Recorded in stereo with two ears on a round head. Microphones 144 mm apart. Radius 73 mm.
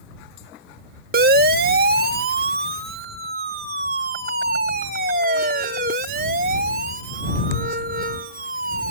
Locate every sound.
1.1 s a siren: 60° right (ahead or behind); by 8.9 s 55° right (ahead or behind)